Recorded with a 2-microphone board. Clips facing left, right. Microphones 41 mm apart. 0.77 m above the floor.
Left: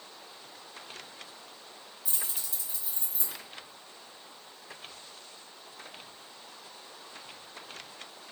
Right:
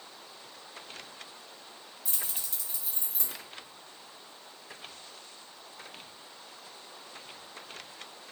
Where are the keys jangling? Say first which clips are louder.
Even; 60° right (ahead or behind), 0.9 m.